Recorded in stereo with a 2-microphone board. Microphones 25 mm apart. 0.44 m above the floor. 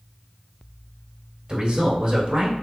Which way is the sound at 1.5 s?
30° right (ahead or behind).